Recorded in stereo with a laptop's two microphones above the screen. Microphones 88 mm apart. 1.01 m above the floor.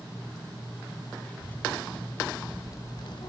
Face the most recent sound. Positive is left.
turn(degrees=50)  # may be behind; listen again after turning